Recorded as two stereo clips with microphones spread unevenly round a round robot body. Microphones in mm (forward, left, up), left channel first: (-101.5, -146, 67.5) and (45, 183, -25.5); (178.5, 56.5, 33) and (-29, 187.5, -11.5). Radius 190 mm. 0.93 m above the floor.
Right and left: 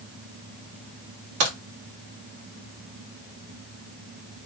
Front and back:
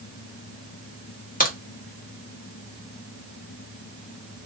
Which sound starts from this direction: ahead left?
A crack, at 1.4 s.